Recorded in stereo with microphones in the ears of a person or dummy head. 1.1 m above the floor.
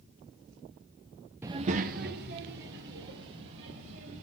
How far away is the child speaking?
About 0.5 m.